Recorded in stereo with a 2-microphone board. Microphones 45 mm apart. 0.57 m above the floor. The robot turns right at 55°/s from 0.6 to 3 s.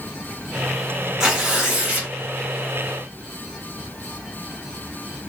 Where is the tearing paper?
170° right, 1.5 m; by 2.1 s 125° right, 1.5 m.